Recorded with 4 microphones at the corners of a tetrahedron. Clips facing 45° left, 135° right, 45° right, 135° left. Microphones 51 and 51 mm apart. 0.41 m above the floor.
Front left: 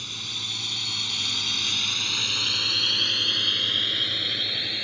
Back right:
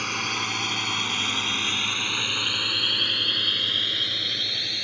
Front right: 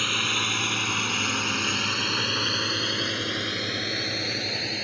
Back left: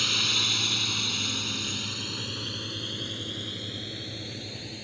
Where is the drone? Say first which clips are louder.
Back right 8 dB, front right 3 dB; 110° right; by 4.8 s 35° right.